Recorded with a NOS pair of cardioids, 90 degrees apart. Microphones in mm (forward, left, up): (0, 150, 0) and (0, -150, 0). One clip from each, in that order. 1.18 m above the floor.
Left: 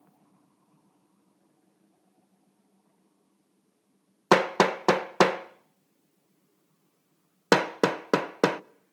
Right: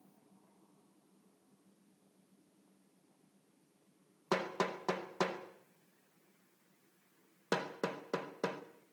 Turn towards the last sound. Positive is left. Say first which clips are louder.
# left 14 dB
turn(degrees=70)